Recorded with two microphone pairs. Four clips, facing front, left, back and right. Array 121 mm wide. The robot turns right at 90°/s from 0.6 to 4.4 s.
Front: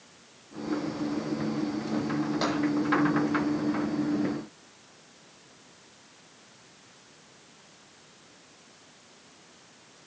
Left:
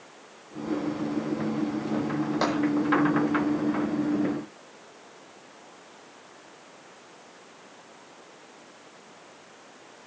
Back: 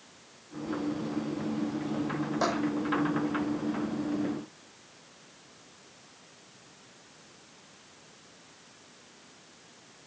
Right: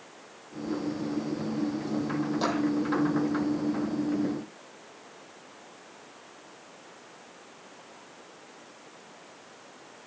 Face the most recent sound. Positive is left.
turn(degrees=-85)